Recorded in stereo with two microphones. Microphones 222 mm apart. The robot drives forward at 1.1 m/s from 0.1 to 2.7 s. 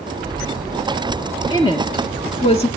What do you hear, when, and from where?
1.5 s a woman speaking: 20° left (ahead or behind), 3 m; by 2.7 s 30° left (ahead or behind), 2 m